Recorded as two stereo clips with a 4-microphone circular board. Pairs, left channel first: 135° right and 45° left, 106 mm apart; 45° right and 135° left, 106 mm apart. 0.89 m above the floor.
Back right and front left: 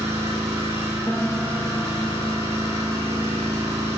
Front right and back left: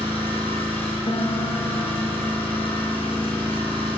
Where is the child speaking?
I don't hear a child speaking.